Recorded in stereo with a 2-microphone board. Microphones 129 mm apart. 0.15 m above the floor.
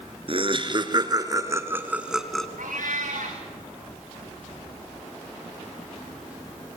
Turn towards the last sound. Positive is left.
turn(degrees=-85)